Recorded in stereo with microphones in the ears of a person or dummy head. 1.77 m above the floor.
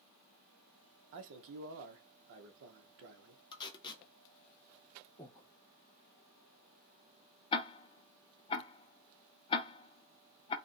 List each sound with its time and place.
1.1 s a man speaking: 60° right (ahead or behind), 0.7 m
3.5 s tape being pulled: 20° left (ahead or behind), 0.8 m
5.2 s breathing: 5° left (ahead or behind), 1.0 m
7.5 s ticking: 25° left (ahead or behind), 0.5 m